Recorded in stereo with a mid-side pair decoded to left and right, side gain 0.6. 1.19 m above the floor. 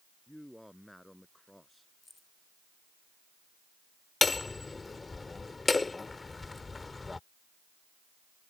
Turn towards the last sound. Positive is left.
turn(degrees=20)